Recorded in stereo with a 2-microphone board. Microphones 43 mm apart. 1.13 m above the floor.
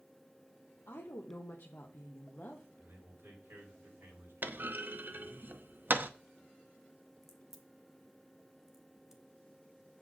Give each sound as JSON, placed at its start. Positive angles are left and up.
{"t": 0.9, "sound": "a woman speaking", "side_deg": 75, "distance_m": 1.1}
{"t": 2.8, "sound": "a man speaking", "side_deg": -65, "distance_m": 5.0}
{"t": 4.4, "sound": "a clunk", "side_deg": -50, "distance_m": 0.6}
{"t": 7.2, "sound": "a crack", "side_deg": -10, "distance_m": 1.2}